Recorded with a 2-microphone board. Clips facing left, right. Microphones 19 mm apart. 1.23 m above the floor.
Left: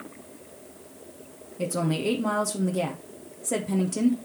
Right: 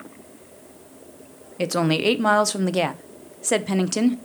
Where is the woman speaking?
45° right (ahead or behind), 0.6 m.